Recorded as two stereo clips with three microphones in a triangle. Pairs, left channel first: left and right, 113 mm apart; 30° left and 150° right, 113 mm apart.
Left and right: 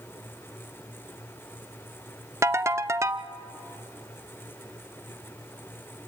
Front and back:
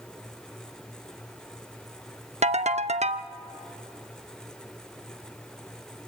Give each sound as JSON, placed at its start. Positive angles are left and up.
{"t": 2.4, "sound": "a ringtone", "azimuth_deg": -155, "distance_m": 0.6}